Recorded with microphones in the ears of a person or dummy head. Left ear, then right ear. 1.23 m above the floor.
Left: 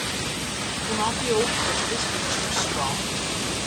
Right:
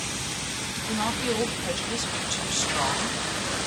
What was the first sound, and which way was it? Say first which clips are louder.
A woman speaking: left 3 dB; 75° right (ahead or behind).